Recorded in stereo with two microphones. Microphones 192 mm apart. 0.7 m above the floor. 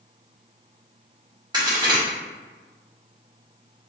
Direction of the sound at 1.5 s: 20° right (ahead or behind).